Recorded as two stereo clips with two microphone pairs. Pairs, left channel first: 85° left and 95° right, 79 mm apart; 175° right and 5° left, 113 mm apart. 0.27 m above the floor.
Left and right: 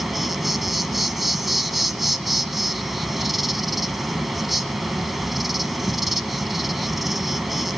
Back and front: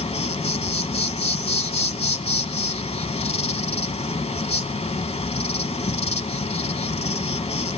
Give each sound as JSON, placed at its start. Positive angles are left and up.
{"t": 0.0, "sound": "an insect", "azimuth_deg": 175, "distance_m": 0.8}